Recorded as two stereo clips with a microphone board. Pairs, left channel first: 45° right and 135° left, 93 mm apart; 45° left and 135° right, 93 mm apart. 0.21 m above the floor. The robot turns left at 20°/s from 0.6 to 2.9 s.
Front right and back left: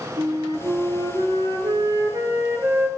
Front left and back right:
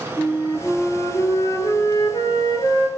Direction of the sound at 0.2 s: 115° left.